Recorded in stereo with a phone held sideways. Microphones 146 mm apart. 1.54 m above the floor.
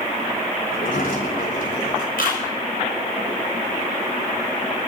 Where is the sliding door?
80° left, 3.5 m.